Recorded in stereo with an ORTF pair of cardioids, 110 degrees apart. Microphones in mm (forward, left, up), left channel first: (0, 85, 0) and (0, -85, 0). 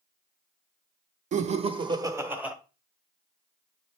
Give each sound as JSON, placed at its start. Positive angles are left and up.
{"t": 1.3, "sound": "laughter", "azimuth_deg": -50, "distance_m": 0.8}